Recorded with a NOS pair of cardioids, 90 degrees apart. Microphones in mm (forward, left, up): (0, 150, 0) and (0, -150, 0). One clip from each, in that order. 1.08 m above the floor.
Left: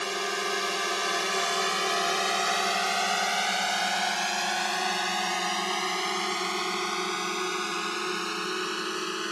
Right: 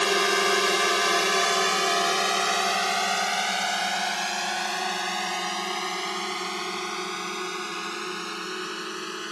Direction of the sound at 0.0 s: 55° right.